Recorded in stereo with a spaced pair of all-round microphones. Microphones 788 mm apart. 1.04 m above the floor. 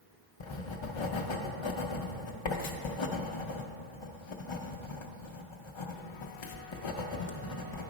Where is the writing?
40° left (ahead or behind), 0.5 m.